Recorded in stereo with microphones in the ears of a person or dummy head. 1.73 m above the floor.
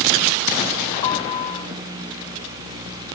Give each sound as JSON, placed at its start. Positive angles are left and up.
{"t": 1.0, "sound": "a piano", "side_deg": 30, "distance_m": 3.0}